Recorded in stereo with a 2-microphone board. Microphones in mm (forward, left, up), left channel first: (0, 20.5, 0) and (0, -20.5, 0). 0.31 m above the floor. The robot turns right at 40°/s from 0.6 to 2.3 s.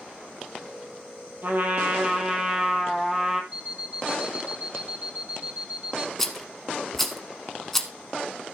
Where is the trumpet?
55° right, 1.6 m; by 3.4 s 20° right, 1.6 m.